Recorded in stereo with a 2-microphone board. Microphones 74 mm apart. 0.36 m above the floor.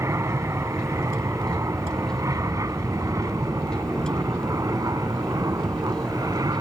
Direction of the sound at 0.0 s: 40° right (ahead or behind).